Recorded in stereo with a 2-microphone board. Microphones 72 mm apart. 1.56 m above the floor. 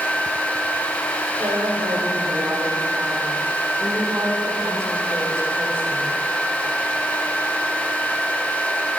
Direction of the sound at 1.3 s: 65° right (ahead or behind).